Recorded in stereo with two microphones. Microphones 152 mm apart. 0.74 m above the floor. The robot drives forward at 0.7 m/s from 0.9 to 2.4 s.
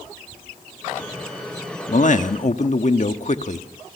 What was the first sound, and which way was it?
A man speaking, 55° left (ahead or behind).